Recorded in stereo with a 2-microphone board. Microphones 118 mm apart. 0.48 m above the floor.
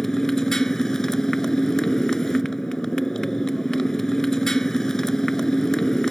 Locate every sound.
0.0 s a motorcycle: 5° left (ahead or behind)